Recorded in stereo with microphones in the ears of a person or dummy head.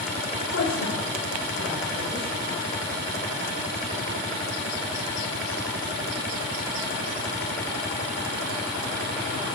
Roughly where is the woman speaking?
Left.